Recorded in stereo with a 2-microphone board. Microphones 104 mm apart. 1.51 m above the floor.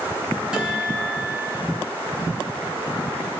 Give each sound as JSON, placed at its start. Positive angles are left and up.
{"t": 0.5, "sound": "a guitar", "side_deg": -10, "distance_m": 3.5}